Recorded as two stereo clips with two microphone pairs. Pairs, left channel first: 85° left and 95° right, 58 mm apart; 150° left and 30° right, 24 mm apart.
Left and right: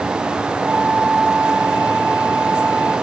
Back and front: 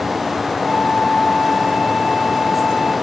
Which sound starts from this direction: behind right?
A flute, at 0.6 s.